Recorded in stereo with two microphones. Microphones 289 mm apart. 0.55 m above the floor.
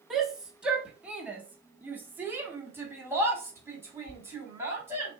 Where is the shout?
Centre (ahead or behind), 1.1 m; by 5.1 s 10° right (ahead or behind), 2.5 m.